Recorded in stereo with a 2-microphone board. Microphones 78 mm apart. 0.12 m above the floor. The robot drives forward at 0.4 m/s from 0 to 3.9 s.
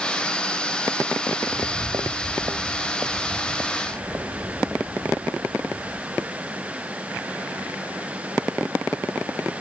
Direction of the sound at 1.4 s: 85° right.